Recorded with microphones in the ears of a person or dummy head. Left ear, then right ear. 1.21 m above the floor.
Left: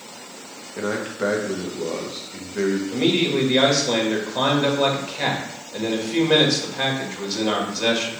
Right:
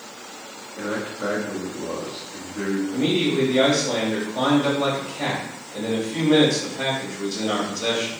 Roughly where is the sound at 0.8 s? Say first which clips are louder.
Left 3 dB; left.